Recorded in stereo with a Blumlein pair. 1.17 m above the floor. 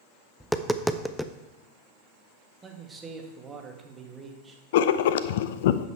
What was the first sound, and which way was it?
Tapping, straight ahead.